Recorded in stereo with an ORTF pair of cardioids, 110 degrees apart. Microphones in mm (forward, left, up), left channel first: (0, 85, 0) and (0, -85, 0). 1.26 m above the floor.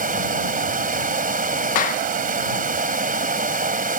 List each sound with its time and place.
0.0 s running water: 55° right
1.8 s a clap: 50° left